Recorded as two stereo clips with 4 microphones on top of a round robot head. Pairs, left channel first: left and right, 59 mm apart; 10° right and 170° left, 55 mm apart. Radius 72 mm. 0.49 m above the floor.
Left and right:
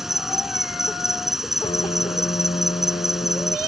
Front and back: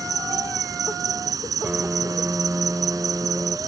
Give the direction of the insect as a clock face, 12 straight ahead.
6 o'clock.